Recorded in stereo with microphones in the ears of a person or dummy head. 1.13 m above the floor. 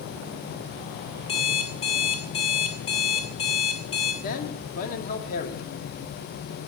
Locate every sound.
1.3 s an alarm clock: 30° left (ahead or behind), 1.3 m
4.2 s a man speaking: 45° left (ahead or behind), 2 m